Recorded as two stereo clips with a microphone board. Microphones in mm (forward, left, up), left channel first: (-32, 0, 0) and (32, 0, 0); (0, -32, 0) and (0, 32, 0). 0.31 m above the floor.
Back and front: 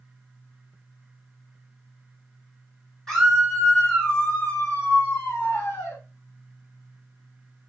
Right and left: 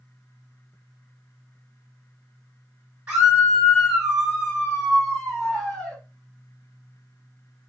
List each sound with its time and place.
3.1 s a scream: 105° left, 1.5 m; by 6.0 s 165° right, 2 m